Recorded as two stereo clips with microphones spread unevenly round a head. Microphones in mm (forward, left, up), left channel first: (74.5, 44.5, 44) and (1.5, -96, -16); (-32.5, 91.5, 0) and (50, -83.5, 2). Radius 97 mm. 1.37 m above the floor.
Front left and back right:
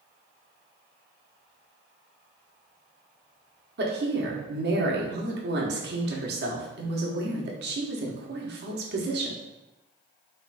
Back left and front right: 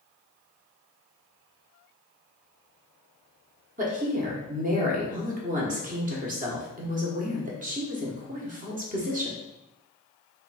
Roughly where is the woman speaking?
Behind right.